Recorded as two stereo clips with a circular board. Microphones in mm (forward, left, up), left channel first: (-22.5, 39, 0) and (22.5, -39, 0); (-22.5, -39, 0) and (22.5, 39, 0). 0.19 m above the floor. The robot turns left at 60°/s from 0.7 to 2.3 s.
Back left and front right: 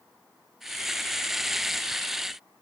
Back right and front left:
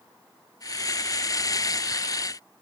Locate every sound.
Only background noise.